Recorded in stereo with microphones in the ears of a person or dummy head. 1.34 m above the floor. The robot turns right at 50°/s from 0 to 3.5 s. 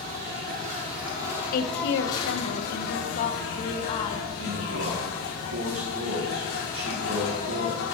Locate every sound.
0.0 s an insect: 85° right, 2.5 m; by 8.0 s 90° left, 2.5 m
1.5 s a woman speaking: 50° left, 0.9 m; by 4.3 s 145° left, 0.9 m
4.4 s a man speaking: 80° right, 2.5 m